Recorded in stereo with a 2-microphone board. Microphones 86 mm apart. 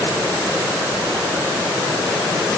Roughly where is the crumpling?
No crumpling in this recording.